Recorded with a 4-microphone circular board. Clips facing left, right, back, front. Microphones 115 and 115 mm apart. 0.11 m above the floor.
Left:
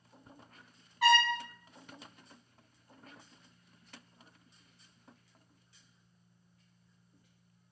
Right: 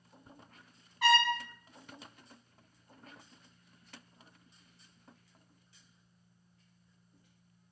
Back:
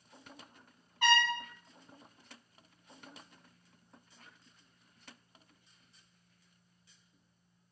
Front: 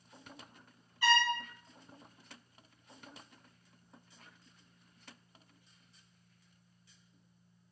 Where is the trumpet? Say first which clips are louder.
Left 1 dB, even; straight behind, 0.9 m.